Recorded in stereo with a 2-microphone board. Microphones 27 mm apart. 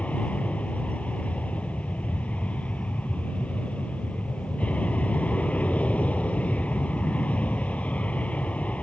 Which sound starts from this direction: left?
An aircraft, at 0.0 s.